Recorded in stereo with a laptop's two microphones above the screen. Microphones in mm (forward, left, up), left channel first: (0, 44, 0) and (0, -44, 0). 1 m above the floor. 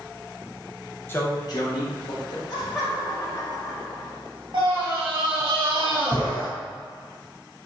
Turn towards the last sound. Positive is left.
turn(degrees=-70)  # may be behind; listen again after turning